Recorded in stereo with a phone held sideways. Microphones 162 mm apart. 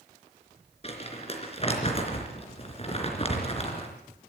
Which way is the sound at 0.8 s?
40° left (ahead or behind).